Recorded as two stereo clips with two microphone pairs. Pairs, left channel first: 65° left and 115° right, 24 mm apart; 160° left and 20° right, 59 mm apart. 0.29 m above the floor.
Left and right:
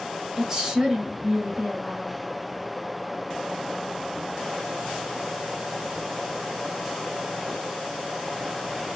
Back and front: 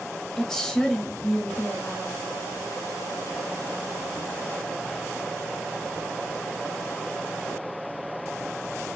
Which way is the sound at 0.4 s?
135° right.